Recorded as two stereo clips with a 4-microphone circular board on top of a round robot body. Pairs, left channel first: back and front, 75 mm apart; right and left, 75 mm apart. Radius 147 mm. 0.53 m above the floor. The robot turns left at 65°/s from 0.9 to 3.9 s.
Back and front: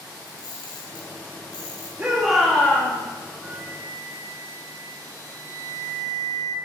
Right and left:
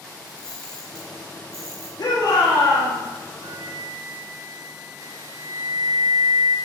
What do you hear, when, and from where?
0.3 s a camera shutter: 170° right, 2.5 m; by 1.9 s 125° left, 2.5 m
2.0 s a shout: 65° right, 1.8 m; by 3.0 s 130° right, 1.8 m
3.4 s a flute: 75° left, 0.7 m; by 6.6 s 45° left, 0.7 m